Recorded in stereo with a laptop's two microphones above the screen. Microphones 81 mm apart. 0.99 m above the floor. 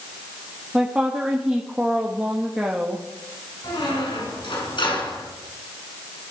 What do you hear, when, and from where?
0.7 s a woman speaking: 10° right (ahead or behind), 1.5 m
3.6 s a squeak: 80° left, 4 m